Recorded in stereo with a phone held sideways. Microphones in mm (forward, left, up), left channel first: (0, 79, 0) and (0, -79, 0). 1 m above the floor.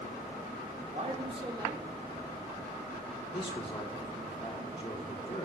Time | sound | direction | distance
0.9 | a man speaking | 50° right (ahead or behind) | 1.6 m
3.3 | a man speaking | 35° left (ahead or behind) | 1.8 m